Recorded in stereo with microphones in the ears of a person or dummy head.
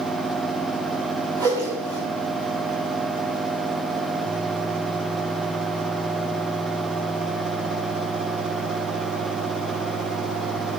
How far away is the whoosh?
About 2.5 m.